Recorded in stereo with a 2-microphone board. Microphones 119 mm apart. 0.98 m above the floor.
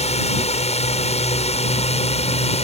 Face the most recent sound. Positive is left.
turn(degrees=65)  # may be behind; listen again after turning